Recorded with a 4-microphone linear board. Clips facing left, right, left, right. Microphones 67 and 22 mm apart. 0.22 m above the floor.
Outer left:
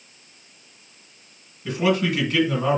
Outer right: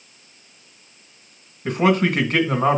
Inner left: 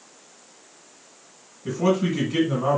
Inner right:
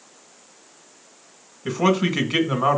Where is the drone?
No drone in this recording.